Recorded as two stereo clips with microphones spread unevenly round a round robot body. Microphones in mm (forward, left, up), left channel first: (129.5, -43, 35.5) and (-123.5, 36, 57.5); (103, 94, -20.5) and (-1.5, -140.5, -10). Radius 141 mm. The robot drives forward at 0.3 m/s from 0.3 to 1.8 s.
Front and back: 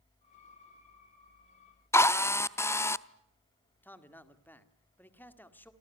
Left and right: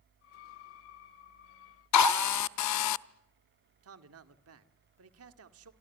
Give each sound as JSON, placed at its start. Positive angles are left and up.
{"t": 1.9, "sound": "a drill", "azimuth_deg": 60, "distance_m": 0.6}
{"t": 3.8, "sound": "a man speaking", "azimuth_deg": -95, "distance_m": 1.9}